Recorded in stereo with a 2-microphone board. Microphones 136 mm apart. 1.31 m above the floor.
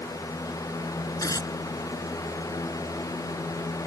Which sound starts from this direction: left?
Tearing paper, at 1.2 s.